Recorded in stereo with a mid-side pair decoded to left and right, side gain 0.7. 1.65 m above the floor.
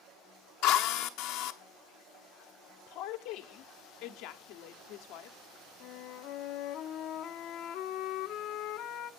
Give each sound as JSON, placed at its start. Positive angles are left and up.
{"t": 0.6, "sound": "a drill", "azimuth_deg": 65, "distance_m": 0.8}
{"t": 2.9, "sound": "a woman speaking", "azimuth_deg": 65, "distance_m": 0.9}
{"t": 5.8, "sound": "a flute", "azimuth_deg": 60, "distance_m": 0.7}